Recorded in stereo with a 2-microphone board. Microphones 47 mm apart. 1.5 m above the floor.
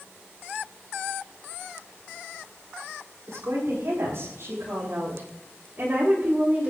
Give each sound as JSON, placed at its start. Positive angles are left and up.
{"t": 3.3, "sound": "a woman speaking", "side_deg": -75, "distance_m": 7.5}